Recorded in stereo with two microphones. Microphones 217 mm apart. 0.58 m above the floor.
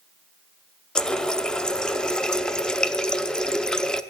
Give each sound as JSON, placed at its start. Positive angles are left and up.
{"t": 0.9, "sound": "a running tap", "side_deg": 5, "distance_m": 0.7}